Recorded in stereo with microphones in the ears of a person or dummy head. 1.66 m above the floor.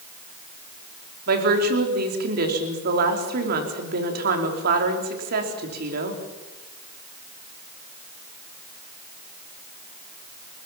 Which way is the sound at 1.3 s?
60° right (ahead or behind).